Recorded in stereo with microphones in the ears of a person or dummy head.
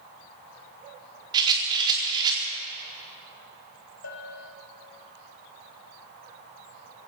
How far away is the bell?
About 4 m.